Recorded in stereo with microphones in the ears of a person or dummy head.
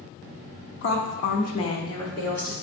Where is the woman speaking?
70° left (ahead or behind), 0.6 m; by 2.5 s 5° left (ahead or behind), 1.5 m.